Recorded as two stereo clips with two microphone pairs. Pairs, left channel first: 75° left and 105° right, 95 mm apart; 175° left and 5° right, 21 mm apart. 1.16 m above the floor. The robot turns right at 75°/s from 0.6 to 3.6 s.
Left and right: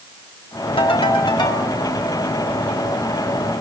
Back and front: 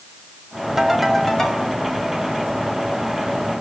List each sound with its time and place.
0.8 s a ringtone: 65° left, 3 m; by 1.7 s 135° left, 3 m